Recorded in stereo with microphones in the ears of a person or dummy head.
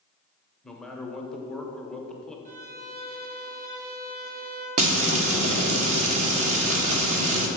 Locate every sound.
0.6 s a man speaking: centre (ahead or behind), 0.8 m
2.5 s a violin: 45° right (ahead or behind), 2.5 m
4.8 s frying: 40° right (ahead or behind), 1.0 m